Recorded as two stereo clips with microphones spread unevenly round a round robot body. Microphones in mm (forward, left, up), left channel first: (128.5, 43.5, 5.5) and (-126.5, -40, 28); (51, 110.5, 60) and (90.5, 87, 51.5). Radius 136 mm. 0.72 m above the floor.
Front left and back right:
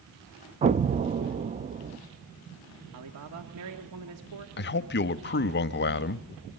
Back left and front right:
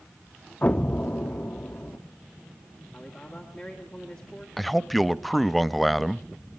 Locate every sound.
0.6 s an explosion: 170° left, 0.5 m
2.9 s a man speaking: 140° right, 1.7 m
4.6 s a man speaking: 50° left, 0.7 m